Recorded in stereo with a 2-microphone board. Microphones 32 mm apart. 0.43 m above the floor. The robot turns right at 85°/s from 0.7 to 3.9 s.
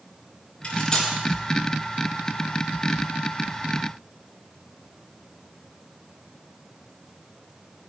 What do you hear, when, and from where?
0.6 s cutlery clinking: 40° left (ahead or behind), 3.5 m; by 1.1 s 5° left (ahead or behind), 3.5 m